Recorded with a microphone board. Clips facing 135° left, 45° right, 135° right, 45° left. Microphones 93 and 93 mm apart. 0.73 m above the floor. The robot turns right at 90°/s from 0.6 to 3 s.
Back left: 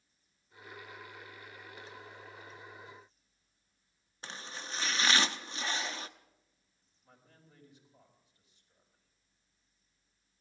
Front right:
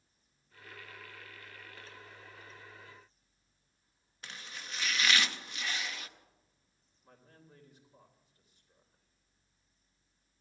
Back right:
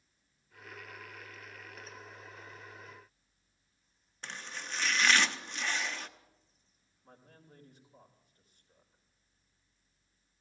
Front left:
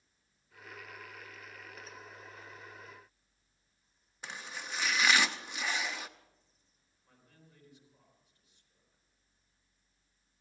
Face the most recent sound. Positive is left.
turn(degrees=-90)